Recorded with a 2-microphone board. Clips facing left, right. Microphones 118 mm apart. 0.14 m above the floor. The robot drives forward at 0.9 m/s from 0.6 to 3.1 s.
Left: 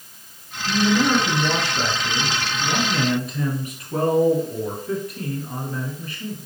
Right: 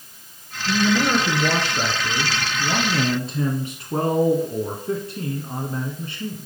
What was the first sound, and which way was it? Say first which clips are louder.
A man speaking: left 1 dB; 15° right (ahead or behind).